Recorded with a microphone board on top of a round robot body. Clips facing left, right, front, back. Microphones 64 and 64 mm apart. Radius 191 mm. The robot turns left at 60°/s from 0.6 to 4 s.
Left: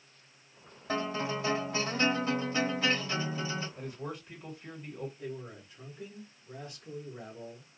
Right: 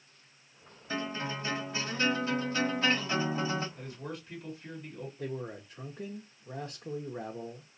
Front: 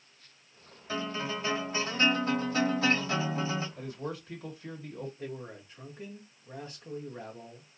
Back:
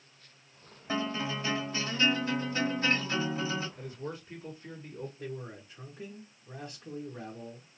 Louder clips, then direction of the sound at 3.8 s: Left 1 dB, front 2 dB; 30° left.